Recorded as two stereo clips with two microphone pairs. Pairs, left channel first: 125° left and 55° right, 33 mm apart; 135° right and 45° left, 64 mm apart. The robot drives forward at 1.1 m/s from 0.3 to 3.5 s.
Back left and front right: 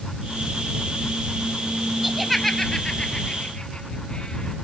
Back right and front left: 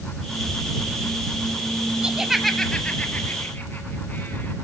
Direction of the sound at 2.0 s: 10° left.